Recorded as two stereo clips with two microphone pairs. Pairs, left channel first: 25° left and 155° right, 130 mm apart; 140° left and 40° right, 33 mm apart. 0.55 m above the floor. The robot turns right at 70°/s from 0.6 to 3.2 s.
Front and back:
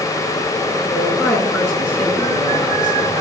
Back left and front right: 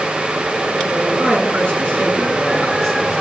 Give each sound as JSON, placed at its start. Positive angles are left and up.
{"t": 0.9, "sound": "a man speaking", "azimuth_deg": -95, "distance_m": 7.5}